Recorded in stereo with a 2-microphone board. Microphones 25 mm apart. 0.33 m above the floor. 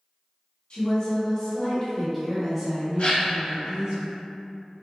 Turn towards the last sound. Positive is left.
turn(degrees=55)  # may be behind; listen again after turning